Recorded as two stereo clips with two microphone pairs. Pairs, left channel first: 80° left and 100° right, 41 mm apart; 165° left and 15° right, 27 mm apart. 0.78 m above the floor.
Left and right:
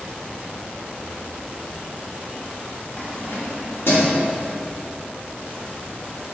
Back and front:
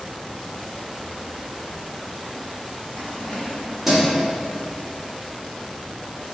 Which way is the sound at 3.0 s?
135° left.